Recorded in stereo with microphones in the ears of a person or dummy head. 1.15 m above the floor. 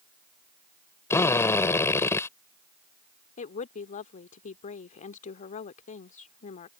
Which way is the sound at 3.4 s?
40° left (ahead or behind).